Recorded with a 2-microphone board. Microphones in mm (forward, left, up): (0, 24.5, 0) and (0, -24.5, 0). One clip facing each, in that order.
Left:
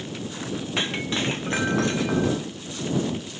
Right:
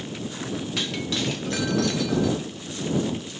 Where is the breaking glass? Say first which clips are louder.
Left 3 dB; 30° left (ahead or behind).